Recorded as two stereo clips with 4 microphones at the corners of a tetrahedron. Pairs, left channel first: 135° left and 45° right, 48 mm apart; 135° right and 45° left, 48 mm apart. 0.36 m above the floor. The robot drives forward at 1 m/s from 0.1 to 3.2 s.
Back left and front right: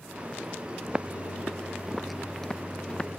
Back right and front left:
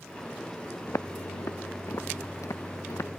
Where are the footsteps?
115° right; by 3.1 s 155° right.